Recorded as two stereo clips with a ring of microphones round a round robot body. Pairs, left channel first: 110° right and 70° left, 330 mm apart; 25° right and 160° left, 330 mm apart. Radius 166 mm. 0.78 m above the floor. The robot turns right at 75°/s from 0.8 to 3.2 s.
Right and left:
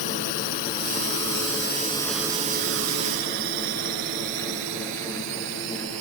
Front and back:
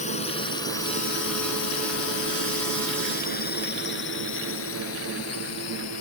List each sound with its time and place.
0.0 s a drone: 90° right; by 6.0 s 20° left